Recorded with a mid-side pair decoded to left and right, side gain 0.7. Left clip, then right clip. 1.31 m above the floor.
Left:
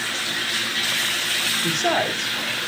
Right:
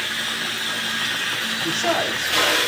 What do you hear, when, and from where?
1.6 s a woman speaking: 15° left, 4 m